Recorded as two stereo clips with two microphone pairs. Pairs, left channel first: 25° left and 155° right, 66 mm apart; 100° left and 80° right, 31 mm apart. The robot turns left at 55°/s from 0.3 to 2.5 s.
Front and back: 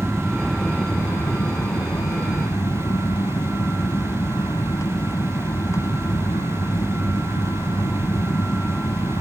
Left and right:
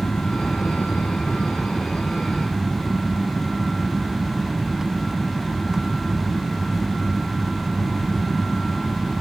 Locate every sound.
0.0 s an aircraft: 115° left; by 9.2 s 5° right